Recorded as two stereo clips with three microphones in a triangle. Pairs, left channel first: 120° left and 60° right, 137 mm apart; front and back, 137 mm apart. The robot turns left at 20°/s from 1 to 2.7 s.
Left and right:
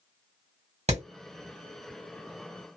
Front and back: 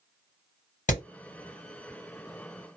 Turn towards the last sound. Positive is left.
turn(degrees=-55)